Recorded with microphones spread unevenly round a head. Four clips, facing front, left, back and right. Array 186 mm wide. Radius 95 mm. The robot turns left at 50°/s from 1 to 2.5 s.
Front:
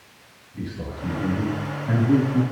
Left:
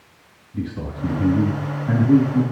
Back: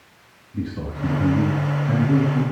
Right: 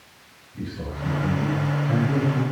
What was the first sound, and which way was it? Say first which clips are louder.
A man speaking: left 4 dB, back 4 dB; 135° left.